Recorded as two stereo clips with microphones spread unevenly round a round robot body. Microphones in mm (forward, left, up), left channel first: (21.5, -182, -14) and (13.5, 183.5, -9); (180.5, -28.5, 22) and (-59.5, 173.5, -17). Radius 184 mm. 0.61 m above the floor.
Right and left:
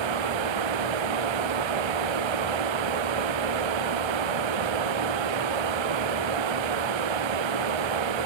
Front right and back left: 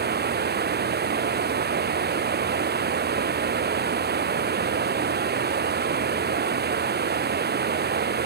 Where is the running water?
80° left.